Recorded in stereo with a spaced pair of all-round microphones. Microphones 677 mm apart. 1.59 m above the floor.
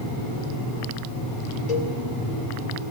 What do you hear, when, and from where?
1.7 s a cowbell: 70° left (ahead or behind), 3 m